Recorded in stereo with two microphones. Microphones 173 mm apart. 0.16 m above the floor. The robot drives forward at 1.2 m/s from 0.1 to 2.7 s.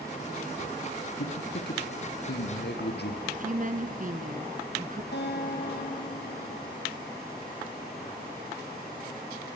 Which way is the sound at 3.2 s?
50° right (ahead or behind).